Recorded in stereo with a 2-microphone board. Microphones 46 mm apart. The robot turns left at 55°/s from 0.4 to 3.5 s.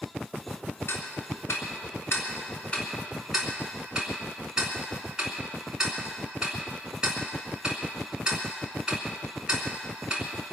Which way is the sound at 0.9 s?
55° left (ahead or behind).